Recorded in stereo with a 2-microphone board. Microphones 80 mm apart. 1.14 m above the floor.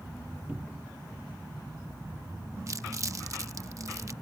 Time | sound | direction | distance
0.5 | a cupboard door | 20° right (ahead or behind) | ?
2.7 | crumpling | 40° right (ahead or behind) | ?